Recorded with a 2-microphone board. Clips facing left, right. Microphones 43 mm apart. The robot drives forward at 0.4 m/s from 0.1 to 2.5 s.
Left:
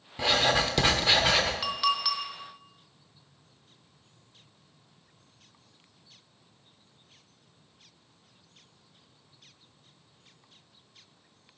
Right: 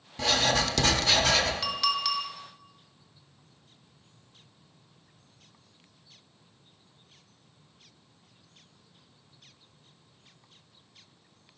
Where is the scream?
No scream in this recording.